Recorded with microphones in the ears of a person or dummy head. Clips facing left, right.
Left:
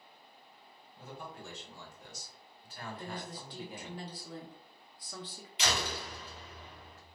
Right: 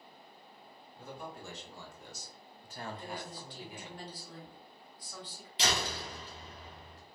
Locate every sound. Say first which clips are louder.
0.9 s a man speaking: right 1 dB; 85° right, 1.7 m; by 4.0 s 35° left (ahead or behind), 0.9 m
3.0 s a woman speaking: even; 55° left (ahead or behind), 0.9 m
5.6 s a door slam: right 1 dB; 25° right (ahead or behind), 0.7 m